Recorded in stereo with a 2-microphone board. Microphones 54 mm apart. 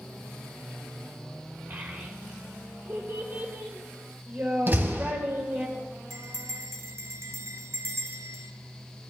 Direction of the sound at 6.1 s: 65° right (ahead or behind).